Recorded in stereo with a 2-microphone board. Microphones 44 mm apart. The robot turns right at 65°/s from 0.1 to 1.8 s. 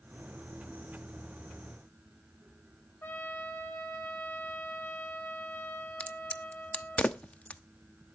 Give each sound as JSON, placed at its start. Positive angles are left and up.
{"t": 3.0, "sound": "a trumpet", "side_deg": 50, "distance_m": 2.5}
{"t": 6.0, "sound": "a crack", "side_deg": 30, "distance_m": 0.9}